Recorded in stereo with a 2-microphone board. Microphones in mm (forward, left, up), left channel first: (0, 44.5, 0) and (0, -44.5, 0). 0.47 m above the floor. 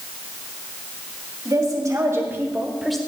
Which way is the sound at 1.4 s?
45° right (ahead or behind).